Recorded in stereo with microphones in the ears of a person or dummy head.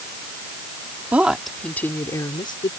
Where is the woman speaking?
5° right (ahead or behind); by 2.7 s 25° left (ahead or behind).